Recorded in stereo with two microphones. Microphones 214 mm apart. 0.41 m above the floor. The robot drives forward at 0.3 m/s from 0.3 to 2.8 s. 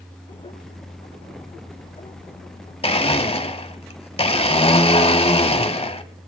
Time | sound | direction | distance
2.8 | a blender | 25° left (ahead or behind) | 0.8 m